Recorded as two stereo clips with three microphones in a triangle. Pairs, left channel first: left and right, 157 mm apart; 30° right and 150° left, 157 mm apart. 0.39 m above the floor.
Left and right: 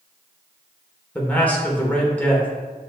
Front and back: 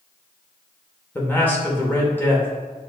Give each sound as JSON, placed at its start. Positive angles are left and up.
{"t": 1.1, "sound": "a man speaking", "azimuth_deg": 25, "distance_m": 0.8}